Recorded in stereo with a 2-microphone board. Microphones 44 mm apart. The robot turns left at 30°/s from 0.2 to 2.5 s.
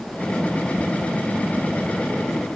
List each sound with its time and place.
Only background noise.